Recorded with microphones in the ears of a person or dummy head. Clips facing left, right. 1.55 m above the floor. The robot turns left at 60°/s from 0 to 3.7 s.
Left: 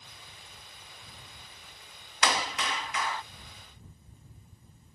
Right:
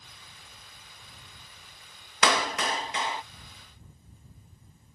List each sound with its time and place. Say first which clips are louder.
2.2 s a clap: right 4 dB; 105° right; by 3.2 s 165° right